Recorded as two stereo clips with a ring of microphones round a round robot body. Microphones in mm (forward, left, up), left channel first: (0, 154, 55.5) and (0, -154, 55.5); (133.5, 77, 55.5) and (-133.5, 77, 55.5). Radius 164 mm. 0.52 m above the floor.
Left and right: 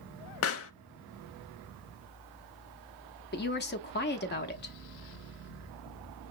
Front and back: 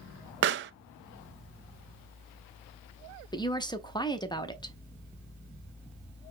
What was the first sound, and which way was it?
A pop, 135° left.